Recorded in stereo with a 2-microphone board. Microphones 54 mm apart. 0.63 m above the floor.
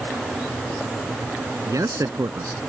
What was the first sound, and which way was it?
A man speaking, 80° right.